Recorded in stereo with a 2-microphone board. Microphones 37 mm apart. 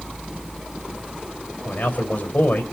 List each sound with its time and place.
1.6 s a man speaking: 55° left (ahead or behind), 3 m